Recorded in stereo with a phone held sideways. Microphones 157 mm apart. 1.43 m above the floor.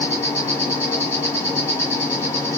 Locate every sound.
0.0 s an insect: 15° left (ahead or behind), 1.6 m